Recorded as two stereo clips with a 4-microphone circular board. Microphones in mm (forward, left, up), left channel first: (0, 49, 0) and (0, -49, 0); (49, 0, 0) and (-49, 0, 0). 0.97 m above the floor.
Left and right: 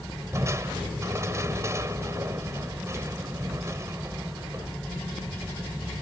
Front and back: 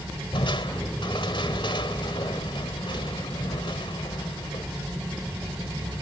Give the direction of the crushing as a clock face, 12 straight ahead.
1 o'clock.